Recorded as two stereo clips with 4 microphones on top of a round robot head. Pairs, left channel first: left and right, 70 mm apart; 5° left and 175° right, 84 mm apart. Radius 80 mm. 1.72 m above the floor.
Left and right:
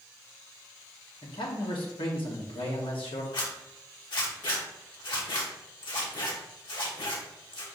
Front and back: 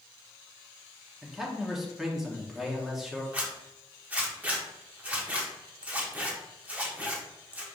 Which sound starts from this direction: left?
A man speaking, at 1.2 s.